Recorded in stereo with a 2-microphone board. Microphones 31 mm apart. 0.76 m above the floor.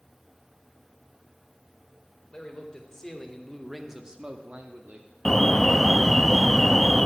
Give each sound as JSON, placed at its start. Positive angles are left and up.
{"t": 2.3, "sound": "a man speaking", "side_deg": 25, "distance_m": 2.0}
{"t": 5.2, "sound": "an alarm", "side_deg": 10, "distance_m": 0.5}